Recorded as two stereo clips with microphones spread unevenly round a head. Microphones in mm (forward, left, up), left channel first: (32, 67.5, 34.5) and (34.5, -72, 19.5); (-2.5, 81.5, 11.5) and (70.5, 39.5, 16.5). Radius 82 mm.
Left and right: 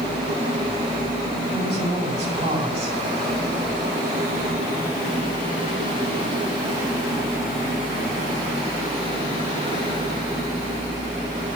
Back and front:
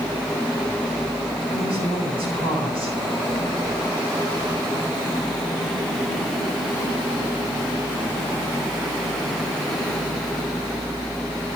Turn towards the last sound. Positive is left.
turn(degrees=-40)